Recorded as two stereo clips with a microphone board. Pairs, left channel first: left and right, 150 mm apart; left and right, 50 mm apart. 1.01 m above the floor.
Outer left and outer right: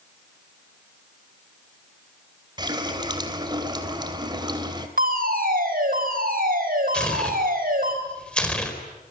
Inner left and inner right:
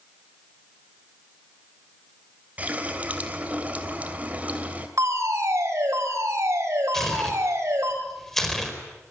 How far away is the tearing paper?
About 4.5 m.